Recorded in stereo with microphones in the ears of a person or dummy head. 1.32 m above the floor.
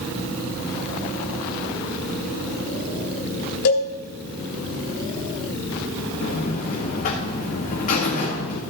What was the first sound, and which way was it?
A cowbell, 65° left (ahead or behind).